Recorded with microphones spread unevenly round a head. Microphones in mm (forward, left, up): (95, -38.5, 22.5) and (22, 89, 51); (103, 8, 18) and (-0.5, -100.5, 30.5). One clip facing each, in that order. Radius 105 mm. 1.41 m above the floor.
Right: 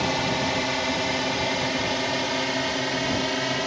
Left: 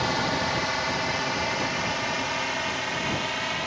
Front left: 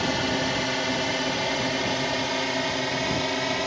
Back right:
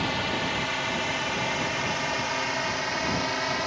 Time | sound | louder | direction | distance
0.0 | a drone | right 2 dB, front left 4 dB | 5° left | ?